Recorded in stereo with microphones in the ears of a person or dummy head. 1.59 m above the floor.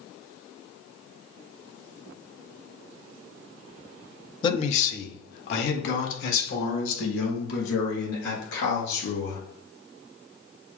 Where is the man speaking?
25° left (ahead or behind), 0.6 m; by 9.4 s 80° left, 4 m.